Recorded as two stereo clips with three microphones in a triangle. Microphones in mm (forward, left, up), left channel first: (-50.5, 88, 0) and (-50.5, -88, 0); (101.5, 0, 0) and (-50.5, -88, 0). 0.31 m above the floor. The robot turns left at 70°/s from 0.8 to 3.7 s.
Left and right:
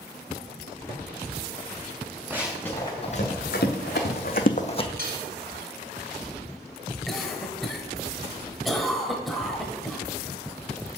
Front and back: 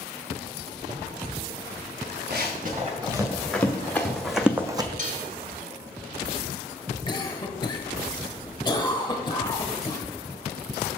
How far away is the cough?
About 1.0 m.